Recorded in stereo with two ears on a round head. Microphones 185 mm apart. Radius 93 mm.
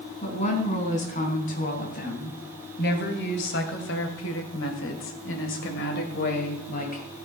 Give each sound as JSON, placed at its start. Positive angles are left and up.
{"t": 0.2, "sound": "a woman speaking", "side_deg": 35, "distance_m": 4.0}